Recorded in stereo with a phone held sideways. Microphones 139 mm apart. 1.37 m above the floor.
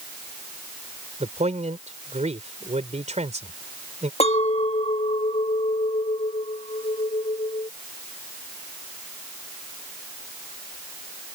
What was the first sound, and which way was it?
A man speaking, 60° right (ahead or behind).